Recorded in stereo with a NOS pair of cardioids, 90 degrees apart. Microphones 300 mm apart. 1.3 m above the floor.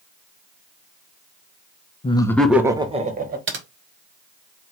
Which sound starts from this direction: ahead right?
Typing on a keyboard, at 3.5 s.